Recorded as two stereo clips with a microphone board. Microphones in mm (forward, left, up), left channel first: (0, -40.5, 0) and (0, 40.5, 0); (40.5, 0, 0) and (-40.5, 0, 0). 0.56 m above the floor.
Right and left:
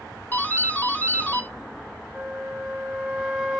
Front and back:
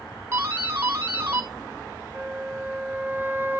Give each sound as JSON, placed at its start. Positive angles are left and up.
{"t": 0.3, "sound": "a doorbell", "azimuth_deg": -150, "distance_m": 1.7}
{"t": 2.1, "sound": "a flute", "azimuth_deg": 155, "distance_m": 1.2}